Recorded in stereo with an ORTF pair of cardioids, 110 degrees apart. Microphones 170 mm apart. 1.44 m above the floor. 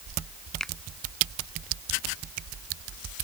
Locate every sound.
0.6 s a finger snap: 5° left